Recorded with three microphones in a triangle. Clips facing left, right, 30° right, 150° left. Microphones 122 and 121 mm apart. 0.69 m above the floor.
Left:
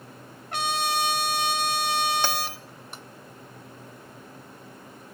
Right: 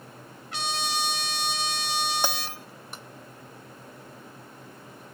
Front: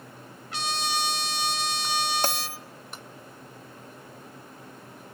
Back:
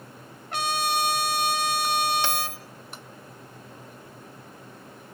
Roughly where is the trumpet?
Behind left.